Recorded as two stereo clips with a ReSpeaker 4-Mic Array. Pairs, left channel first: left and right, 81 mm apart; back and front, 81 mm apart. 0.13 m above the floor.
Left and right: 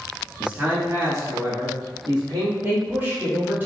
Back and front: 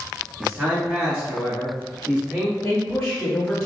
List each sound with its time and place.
0.4 s a man speaking: 35° right, 1.1 m; by 2.5 s 75° right, 3 m
2.6 s a woman speaking: 125° right, 1.2 m